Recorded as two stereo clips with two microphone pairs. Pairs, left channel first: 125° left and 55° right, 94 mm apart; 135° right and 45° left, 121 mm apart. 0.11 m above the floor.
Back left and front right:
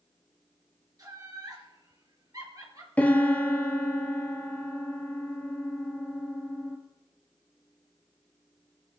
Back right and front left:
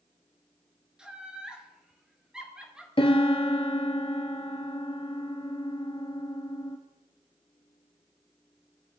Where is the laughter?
35° right, 2.0 m.